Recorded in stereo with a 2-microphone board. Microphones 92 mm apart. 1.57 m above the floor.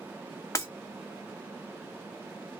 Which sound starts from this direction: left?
Breaking glass, at 0.6 s.